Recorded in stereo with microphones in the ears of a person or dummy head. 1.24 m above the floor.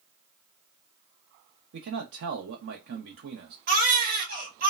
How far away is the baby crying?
About 1.6 m.